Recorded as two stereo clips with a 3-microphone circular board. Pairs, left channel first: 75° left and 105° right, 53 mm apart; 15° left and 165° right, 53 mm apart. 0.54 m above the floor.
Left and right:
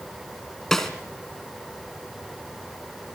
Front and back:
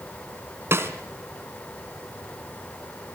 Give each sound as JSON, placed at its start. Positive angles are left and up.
{"t": 0.7, "sound": "a snare drum", "azimuth_deg": 155, "distance_m": 2.5}